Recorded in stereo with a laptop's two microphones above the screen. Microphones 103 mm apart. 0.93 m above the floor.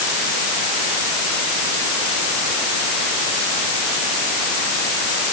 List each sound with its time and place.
Only background noise.